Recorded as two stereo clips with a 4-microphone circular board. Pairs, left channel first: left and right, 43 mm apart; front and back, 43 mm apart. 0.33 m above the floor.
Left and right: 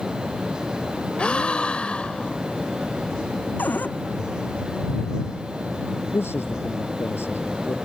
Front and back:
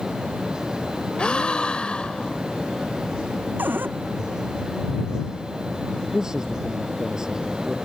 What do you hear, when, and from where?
1.2 s a gasp: 45° left
3.6 s a cupboard door: 135° left
6.1 s a man speaking: 105° left